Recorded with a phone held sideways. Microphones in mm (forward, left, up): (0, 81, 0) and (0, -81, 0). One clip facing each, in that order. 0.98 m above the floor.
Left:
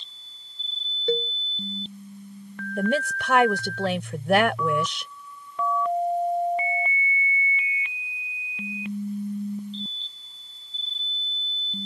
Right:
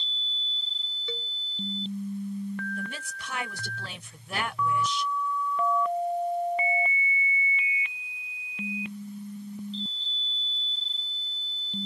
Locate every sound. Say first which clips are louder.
1.1 s a cowbell: left 15 dB; 55° left (ahead or behind)
2.8 s a woman speaking: left 14 dB; 85° left